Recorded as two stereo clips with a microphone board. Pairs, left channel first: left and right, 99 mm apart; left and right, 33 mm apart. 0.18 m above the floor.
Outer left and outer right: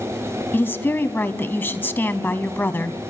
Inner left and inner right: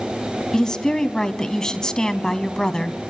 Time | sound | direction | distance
0.5 | a woman speaking | 20° left (ahead or behind) | 1.0 m